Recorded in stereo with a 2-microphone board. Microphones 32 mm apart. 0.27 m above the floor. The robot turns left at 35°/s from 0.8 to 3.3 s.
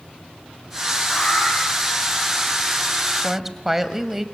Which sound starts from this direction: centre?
A woman speaking, at 3.2 s.